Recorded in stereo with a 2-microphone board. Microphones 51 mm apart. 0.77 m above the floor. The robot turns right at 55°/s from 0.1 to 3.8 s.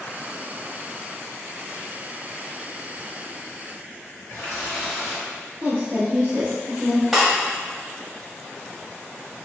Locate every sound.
4.3 s a running tap: 70° left (ahead or behind), 1.9 m
5.6 s a woman speaking: 40° right (ahead or behind), 0.8 m
7.1 s breaking glass: 5° right (ahead or behind), 1.0 m